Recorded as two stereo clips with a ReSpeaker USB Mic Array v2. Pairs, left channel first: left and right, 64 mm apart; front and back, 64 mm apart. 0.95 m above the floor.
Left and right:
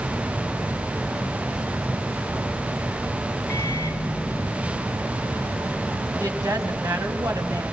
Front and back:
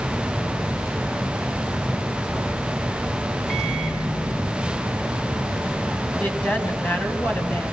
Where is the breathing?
I don't hear breathing.